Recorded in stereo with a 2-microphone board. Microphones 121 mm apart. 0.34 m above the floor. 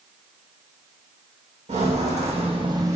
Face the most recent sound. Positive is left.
turn(degrees=-25)  # may be behind; listen again after turning